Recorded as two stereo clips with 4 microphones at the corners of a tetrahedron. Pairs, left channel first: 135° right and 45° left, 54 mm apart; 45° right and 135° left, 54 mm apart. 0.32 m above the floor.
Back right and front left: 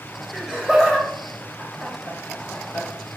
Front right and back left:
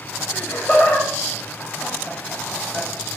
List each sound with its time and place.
0.3 s laughter: 35° right, 1.8 m; by 2.9 s 140° right, 2 m